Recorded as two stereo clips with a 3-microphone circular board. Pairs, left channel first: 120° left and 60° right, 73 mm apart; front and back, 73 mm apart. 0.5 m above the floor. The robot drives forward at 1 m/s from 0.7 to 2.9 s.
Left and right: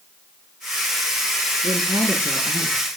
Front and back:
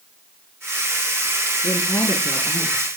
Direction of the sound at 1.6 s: 55° right.